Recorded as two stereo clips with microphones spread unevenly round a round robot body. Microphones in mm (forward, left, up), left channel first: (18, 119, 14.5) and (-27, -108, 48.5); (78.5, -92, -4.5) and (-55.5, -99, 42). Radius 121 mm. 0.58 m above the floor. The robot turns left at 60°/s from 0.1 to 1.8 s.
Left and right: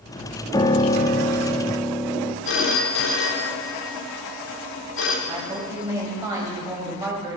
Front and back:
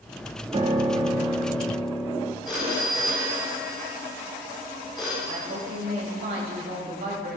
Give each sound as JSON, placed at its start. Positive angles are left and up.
{"t": 0.5, "sound": "a piano", "azimuth_deg": 115, "distance_m": 0.7}
{"t": 2.5, "sound": "a phone ringing", "azimuth_deg": 85, "distance_m": 1.2}
{"t": 5.3, "sound": "a woman speaking", "azimuth_deg": 180, "distance_m": 3.0}